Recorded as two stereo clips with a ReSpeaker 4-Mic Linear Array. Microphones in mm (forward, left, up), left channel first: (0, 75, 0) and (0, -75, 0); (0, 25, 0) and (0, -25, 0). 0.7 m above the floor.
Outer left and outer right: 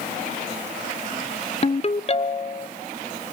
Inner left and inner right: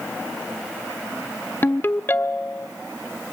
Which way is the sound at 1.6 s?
45° left (ahead or behind).